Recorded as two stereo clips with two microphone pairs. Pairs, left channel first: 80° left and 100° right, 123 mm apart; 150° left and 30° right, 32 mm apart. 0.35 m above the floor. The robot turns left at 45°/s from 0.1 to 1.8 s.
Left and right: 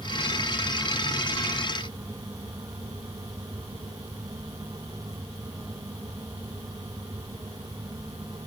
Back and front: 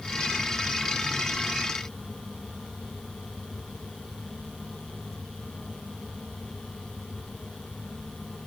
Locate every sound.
Only background noise.